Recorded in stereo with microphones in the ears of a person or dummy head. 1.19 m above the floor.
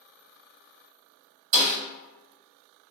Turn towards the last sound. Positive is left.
turn(degrees=-45)  # may be behind; listen again after turning